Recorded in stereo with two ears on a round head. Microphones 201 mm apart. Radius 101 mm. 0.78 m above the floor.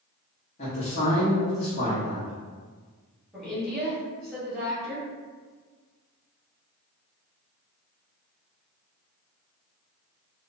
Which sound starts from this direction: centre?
A woman speaking, at 3.3 s.